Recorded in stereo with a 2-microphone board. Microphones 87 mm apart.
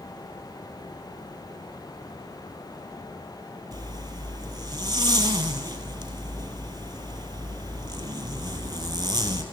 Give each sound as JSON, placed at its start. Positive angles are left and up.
{"t": 3.7, "sound": "a zipper", "side_deg": -55, "distance_m": 2.5}